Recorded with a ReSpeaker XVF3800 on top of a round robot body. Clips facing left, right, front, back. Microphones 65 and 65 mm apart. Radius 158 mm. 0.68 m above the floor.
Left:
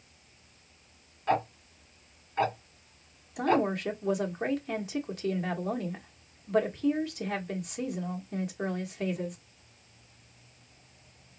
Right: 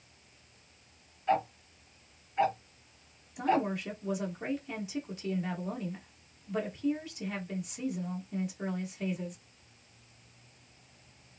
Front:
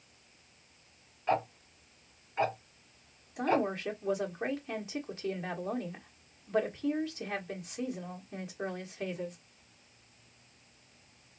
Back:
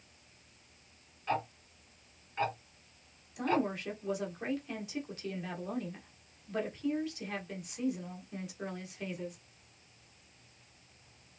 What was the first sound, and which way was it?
Ticking, 70° left.